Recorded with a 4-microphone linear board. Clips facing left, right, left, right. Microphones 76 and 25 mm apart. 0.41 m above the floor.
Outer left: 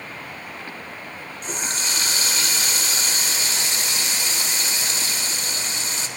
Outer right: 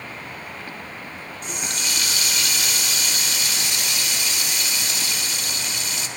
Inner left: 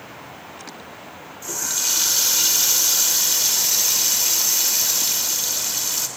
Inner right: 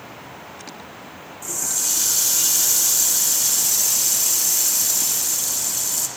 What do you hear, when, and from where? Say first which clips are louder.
1.4 s a running tap: outer left 2 dB, inner left 1 dB; 35° left (ahead or behind), 0.9 m